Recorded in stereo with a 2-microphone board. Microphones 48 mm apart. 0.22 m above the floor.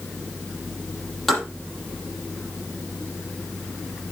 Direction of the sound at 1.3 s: 5° left (ahead or behind).